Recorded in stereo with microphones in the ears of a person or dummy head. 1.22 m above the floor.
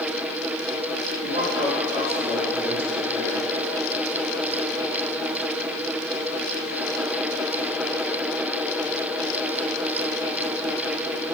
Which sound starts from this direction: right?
A man speaking, at 1.2 s.